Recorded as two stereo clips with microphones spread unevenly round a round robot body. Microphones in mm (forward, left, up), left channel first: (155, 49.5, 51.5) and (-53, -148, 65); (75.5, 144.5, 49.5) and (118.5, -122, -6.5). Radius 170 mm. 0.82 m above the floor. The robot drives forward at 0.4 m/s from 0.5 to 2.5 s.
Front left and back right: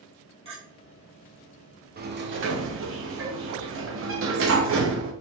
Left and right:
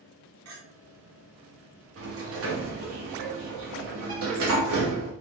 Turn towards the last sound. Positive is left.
turn(degrees=-95)